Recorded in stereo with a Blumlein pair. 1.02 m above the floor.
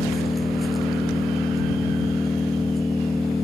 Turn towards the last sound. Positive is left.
turn(degrees=10)